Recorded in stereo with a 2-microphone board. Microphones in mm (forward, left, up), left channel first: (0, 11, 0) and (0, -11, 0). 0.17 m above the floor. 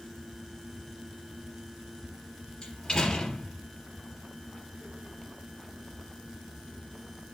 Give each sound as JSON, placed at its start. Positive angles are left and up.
{"t": 2.6, "sound": "a door slam", "side_deg": 30, "distance_m": 3.0}